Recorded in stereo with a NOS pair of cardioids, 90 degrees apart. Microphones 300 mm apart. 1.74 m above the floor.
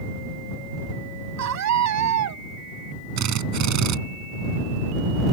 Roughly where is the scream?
Ahead right.